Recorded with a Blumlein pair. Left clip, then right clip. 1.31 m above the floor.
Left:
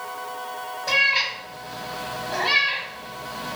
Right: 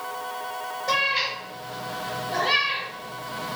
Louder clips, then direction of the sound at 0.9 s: Left 4 dB; 40° left.